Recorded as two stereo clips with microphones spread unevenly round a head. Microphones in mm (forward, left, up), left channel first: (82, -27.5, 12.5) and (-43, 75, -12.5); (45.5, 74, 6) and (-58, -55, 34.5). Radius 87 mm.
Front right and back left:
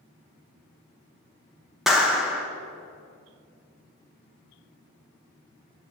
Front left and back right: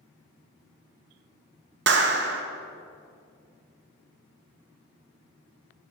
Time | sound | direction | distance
1.9 | a clap | 125° right | 1.2 m